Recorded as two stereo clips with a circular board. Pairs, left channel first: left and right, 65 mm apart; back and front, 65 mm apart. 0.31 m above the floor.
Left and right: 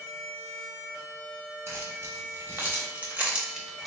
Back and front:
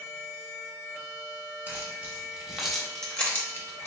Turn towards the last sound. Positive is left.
turn(degrees=180)